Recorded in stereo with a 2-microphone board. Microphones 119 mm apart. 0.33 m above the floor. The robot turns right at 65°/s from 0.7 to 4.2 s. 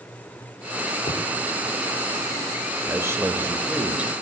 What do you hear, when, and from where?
1.1 s a thud: 70° left (ahead or behind), 3.5 m; by 1.2 s 60° left (ahead or behind), 3.5 m
2.9 s a man speaking: 20° right (ahead or behind), 0.9 m; by 4.1 s 5° right (ahead or behind), 0.9 m